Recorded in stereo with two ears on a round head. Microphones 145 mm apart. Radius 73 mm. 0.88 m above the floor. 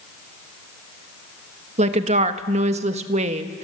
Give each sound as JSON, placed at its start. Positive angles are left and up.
{"t": 1.8, "sound": "a woman speaking", "side_deg": -40, "distance_m": 1.3}